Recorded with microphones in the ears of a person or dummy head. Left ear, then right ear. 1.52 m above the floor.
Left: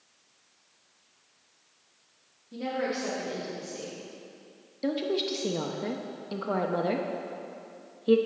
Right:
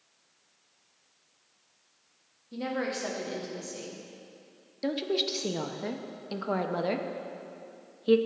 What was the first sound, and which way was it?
A woman speaking, 30° right (ahead or behind).